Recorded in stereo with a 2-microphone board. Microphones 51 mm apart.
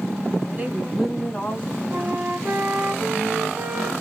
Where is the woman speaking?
35° right (ahead or behind), 1.4 m; by 1.8 s 35° left (ahead or behind), 1.4 m.